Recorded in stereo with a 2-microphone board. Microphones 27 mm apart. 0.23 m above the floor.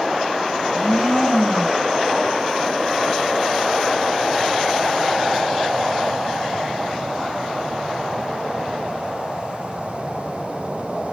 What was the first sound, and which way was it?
A blender, 60° left (ahead or behind).